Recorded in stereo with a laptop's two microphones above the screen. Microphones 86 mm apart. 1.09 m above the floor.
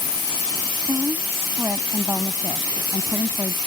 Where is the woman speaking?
30° right (ahead or behind).